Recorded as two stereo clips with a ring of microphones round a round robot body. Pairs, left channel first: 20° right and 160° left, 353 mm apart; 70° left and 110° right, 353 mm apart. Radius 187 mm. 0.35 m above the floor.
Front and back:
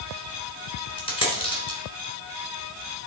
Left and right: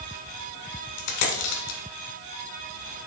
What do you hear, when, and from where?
1.0 s a dropped coin: 55° left, 1.7 m